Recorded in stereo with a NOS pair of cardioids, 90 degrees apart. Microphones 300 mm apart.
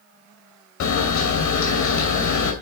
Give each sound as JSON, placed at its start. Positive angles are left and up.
{"t": 0.8, "sound": "a camera shutter", "azimuth_deg": 65, "distance_m": 2.5}